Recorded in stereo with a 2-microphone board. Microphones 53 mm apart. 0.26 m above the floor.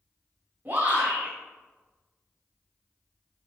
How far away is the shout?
About 1.9 m.